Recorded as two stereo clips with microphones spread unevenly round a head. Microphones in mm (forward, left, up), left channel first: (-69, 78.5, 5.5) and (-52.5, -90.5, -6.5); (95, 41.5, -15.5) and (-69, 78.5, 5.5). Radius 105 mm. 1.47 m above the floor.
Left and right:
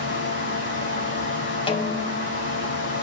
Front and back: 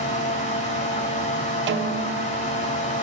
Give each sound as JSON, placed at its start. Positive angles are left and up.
{"t": 0.0, "sound": "a fan", "azimuth_deg": 35, "distance_m": 4.5}
{"t": 1.7, "sound": "a snare drum", "azimuth_deg": 155, "distance_m": 1.1}